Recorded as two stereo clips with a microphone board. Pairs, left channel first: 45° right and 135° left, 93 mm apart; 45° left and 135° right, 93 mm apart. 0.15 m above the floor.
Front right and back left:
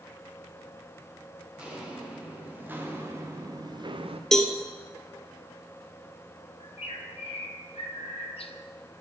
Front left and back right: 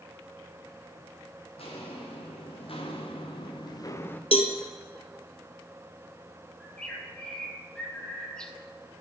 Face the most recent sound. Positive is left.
turn(degrees=-40)